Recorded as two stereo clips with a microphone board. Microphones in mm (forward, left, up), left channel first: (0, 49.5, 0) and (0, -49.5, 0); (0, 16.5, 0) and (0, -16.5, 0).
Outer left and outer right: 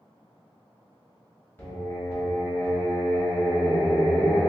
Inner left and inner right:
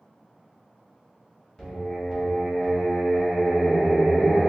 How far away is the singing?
About 1.2 m.